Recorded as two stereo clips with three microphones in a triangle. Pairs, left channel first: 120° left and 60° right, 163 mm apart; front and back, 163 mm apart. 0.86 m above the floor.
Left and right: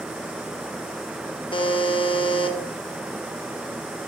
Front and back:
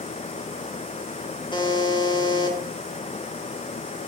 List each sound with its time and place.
1.5 s a buzzer: 60° left, 1.2 m